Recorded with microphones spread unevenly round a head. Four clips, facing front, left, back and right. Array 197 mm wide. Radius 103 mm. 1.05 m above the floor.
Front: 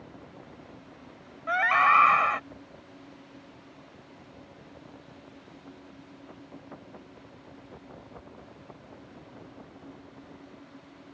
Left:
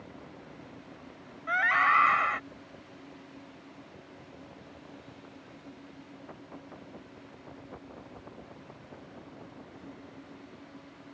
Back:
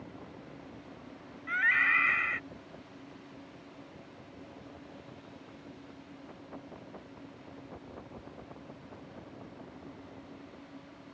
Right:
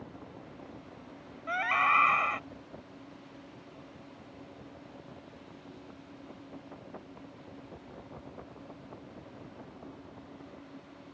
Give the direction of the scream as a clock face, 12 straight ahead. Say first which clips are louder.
Left 2 dB, front 9 dB; 12 o'clock.